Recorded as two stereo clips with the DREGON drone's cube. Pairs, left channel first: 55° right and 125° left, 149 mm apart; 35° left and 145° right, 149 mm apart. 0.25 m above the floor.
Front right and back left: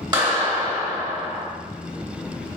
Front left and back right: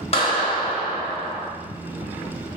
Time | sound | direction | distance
0.1 | a clap | 70° left | 1.7 m